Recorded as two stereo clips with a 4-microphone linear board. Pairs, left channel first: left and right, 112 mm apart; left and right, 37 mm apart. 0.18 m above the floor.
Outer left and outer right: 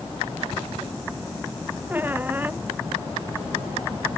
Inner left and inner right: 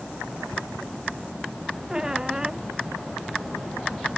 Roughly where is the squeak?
Centre.